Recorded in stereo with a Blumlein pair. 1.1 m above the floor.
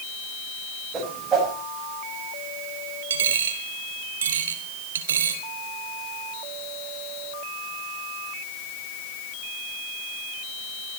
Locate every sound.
0.9 s a whoosh: 20° right, 6 m
3.1 s a dropped coin: 65° right, 2 m